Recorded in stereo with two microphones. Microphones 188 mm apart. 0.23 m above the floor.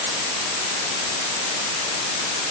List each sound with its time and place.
Only background noise.